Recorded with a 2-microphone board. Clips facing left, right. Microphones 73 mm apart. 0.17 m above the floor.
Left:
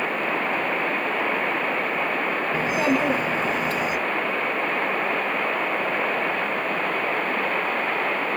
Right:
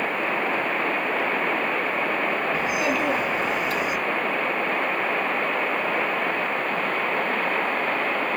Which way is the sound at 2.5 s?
35° left (ahead or behind).